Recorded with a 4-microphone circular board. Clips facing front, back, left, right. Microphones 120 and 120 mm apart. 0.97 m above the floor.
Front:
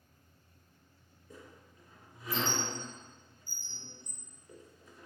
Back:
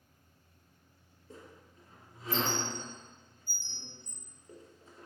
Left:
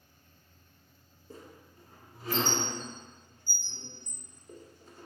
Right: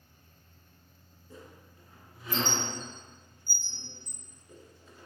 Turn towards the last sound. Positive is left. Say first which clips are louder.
# back 1 dB, left 1 dB
turn(degrees=130)